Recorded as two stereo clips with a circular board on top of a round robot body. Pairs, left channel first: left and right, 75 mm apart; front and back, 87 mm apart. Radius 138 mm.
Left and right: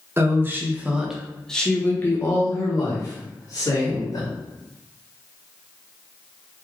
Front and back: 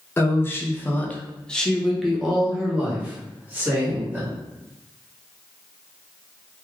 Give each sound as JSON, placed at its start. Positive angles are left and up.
{"t": 0.2, "sound": "a woman speaking", "azimuth_deg": -50, "distance_m": 1.2}